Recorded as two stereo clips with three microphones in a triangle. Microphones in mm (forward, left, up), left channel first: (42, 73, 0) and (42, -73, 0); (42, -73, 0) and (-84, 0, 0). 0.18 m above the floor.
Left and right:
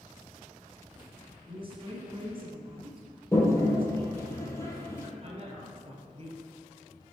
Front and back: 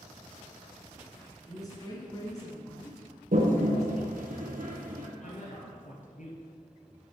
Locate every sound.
1.5 s a woman speaking: 75° right, 1.6 m
3.3 s a toilet flushing: 160° left, 1.9 m
5.2 s a man speaking: 45° right, 2.5 m